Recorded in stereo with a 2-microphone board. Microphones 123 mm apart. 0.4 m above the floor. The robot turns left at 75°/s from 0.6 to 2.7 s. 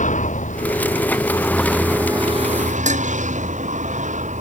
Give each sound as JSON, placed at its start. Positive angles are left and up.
{"t": 0.0, "sound": "a vehicle", "side_deg": 80}
{"t": 2.9, "sound": "dishes clattering", "side_deg": -75}